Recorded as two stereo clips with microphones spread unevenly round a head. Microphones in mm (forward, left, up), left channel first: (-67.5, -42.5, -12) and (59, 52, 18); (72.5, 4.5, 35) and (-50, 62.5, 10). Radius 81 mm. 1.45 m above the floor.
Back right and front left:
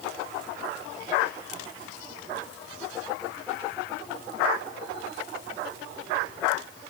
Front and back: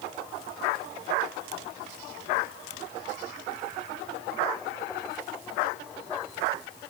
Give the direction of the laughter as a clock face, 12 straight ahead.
No laughter in this recording.